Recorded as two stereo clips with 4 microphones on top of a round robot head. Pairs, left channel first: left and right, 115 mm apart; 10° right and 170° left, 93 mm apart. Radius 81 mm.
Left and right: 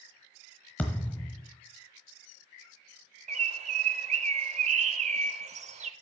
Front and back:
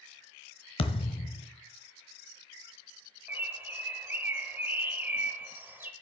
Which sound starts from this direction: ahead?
A thud, at 0.8 s.